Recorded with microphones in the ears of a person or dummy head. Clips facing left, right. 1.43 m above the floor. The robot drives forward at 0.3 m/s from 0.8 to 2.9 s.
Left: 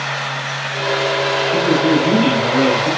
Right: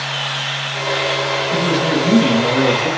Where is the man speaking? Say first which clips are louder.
Left 3 dB; 45° right (ahead or behind), 1.9 m; by 2.9 s 40° right (ahead or behind), 2 m.